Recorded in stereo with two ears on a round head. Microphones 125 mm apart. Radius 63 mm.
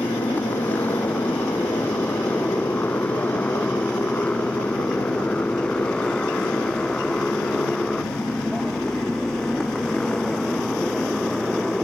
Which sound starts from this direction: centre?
A motorcycle, at 0.0 s.